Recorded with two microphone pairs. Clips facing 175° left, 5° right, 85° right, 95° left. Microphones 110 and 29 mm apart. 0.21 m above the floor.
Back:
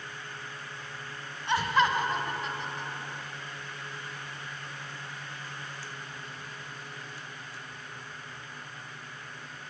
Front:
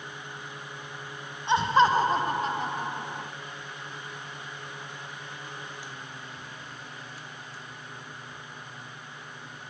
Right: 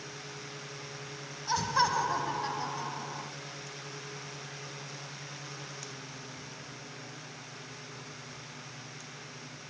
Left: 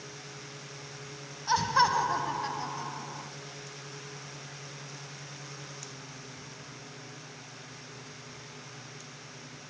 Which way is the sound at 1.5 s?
45° left.